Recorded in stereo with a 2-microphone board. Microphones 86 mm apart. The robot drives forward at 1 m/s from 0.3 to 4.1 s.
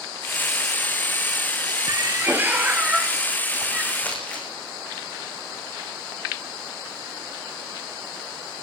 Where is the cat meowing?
45° right (ahead or behind), 0.5 m; by 3.9 s 10° right (ahead or behind), 2.5 m.